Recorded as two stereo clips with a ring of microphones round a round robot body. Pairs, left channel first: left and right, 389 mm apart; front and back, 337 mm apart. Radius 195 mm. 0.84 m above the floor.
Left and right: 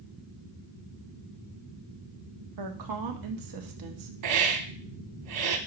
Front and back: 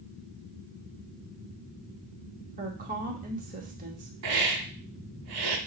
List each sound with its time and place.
2.6 s a woman speaking: 115° right, 1.4 m
4.2 s a hiss: 130° right, 1.3 m